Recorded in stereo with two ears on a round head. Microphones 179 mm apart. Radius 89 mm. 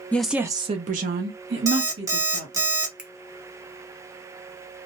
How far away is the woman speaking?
About 0.5 m.